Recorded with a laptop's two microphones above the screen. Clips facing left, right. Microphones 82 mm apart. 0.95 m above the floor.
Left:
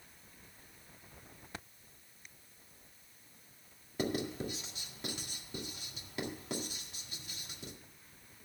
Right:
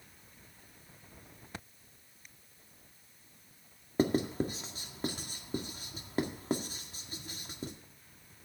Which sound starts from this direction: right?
Writing, at 4.0 s.